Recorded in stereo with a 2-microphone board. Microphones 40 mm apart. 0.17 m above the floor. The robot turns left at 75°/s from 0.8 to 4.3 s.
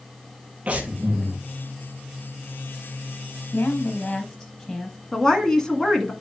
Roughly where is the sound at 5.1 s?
Centre.